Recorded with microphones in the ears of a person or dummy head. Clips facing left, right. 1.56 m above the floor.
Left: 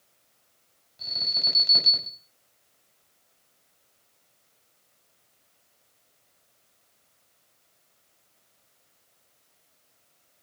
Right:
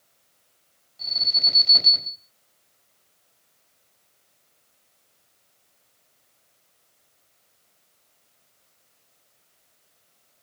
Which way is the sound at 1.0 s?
25° left (ahead or behind).